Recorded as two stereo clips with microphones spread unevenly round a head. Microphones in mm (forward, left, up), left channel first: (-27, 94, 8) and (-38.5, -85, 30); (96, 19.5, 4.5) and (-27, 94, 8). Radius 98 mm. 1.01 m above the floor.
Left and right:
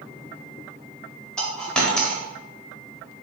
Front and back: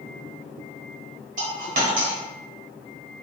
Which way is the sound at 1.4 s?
175° left.